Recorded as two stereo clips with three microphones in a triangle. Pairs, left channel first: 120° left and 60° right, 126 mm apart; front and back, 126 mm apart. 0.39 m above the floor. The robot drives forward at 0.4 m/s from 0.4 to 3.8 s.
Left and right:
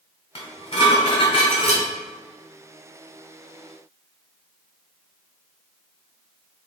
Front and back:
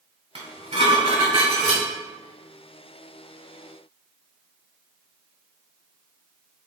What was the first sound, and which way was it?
Dishes clattering, 160° left.